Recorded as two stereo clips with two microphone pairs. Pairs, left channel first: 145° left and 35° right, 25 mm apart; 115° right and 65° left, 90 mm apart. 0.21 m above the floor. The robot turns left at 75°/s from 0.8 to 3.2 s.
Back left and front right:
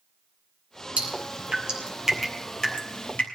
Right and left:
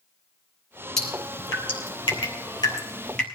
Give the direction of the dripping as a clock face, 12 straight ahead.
1 o'clock.